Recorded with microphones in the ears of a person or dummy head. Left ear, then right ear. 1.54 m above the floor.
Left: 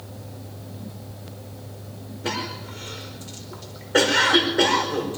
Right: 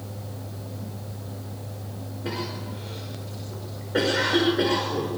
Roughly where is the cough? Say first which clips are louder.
Left 4 dB; left.